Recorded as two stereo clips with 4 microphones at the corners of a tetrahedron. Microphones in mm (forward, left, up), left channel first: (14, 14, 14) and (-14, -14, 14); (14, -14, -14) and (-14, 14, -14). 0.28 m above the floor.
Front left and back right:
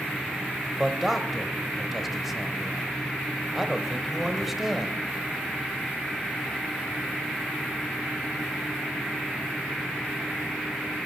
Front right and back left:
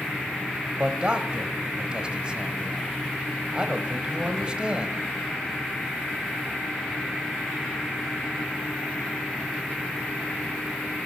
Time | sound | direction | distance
0.8 | a man speaking | 145° left | 1.1 m